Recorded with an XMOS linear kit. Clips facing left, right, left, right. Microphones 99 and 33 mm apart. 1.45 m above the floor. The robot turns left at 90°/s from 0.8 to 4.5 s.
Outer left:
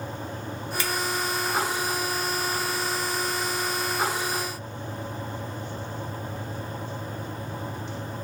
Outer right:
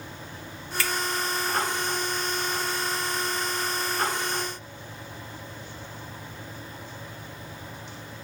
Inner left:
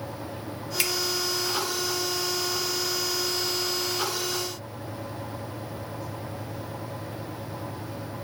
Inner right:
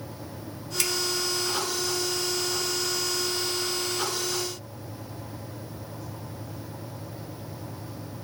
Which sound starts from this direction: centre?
A finger snap, at 0.8 s.